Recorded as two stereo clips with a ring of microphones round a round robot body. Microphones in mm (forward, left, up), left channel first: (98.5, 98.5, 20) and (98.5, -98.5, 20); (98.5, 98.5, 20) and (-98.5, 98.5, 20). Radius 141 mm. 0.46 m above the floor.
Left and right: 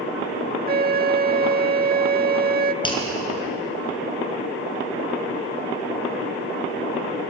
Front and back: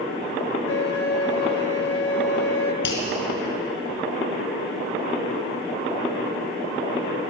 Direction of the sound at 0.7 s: 45° right.